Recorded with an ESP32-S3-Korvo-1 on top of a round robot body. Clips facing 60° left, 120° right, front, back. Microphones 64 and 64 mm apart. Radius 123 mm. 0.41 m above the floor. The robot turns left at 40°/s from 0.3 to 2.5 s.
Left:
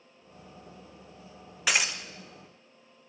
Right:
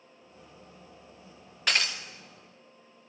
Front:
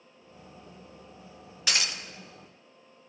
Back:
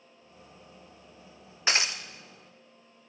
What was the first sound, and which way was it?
Breaking glass, 140° left.